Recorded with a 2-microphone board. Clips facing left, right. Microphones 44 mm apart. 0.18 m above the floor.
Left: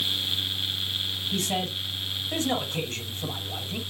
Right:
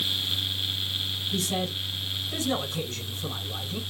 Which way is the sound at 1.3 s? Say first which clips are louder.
Left 1 dB; 45° left (ahead or behind).